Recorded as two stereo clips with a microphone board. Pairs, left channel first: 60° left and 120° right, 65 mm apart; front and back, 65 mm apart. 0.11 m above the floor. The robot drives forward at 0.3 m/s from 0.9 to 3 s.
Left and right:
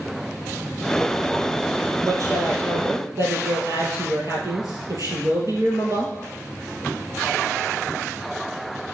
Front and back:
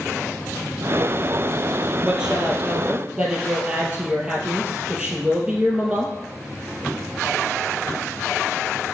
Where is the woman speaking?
105° right, 2.5 m; by 6.1 s 115° right, 2.5 m.